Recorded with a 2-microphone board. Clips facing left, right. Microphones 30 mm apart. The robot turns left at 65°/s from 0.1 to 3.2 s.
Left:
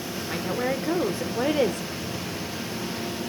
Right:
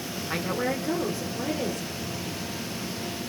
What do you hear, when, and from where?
0.2 s a woman speaking: 165° right, 1.9 m; by 1.8 s 90° left, 1.9 m